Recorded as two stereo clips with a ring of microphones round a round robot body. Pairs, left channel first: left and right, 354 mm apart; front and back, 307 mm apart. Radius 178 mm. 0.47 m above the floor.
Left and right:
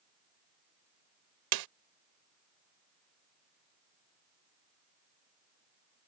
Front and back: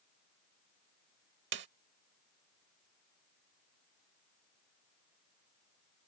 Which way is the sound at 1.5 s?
120° right.